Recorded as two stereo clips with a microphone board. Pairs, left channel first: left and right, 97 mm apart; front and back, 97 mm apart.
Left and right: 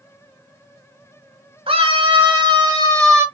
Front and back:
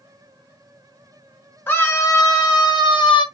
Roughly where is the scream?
Ahead right.